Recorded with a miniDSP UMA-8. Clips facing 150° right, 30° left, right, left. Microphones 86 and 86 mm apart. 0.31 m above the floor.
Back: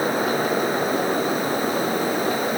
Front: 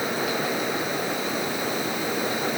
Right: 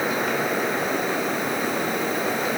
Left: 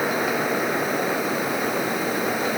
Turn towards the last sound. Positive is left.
No sound to turn to.